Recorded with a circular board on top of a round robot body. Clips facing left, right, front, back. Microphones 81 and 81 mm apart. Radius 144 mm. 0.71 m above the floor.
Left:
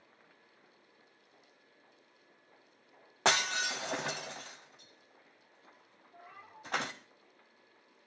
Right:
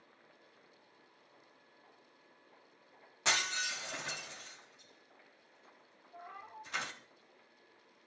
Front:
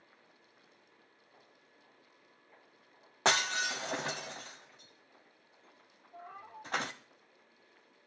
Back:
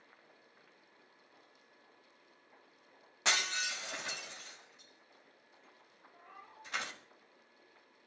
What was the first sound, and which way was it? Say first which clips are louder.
Breaking glass: left 5 dB, front 5 dB; 50° left.